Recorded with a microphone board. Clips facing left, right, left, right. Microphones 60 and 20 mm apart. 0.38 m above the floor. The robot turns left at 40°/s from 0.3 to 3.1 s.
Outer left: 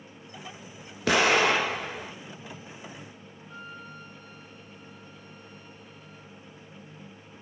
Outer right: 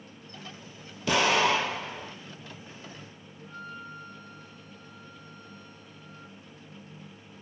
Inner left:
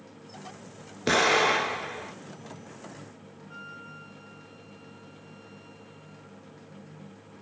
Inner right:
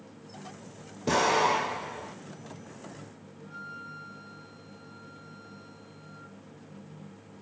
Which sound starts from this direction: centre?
A flute, at 3.4 s.